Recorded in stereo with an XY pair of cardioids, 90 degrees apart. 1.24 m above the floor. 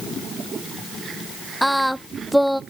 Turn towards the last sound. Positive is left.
turn(degrees=0)